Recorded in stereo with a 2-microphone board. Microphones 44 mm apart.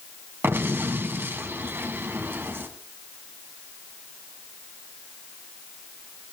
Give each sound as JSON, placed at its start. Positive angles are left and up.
{"t": 0.4, "sound": "an explosion", "side_deg": -50, "distance_m": 2.5}